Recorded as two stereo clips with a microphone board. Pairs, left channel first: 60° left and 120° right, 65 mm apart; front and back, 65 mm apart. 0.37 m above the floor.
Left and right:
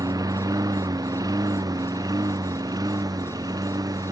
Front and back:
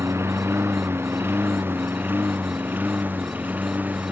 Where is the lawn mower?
135° right; by 4.1 s 115° right.